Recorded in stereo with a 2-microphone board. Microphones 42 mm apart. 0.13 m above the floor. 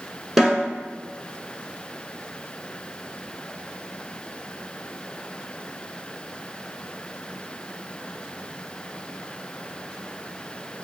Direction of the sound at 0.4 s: 5° right (ahead or behind).